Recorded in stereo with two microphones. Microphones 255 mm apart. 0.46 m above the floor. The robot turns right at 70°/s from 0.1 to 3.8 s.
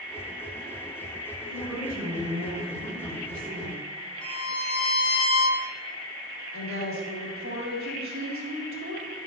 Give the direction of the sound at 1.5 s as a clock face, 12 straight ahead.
6 o'clock.